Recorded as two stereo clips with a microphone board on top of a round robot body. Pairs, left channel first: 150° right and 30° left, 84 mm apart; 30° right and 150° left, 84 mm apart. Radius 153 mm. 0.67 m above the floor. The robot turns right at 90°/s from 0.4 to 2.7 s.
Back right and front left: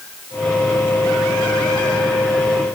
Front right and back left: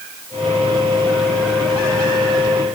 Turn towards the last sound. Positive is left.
No sound to turn to.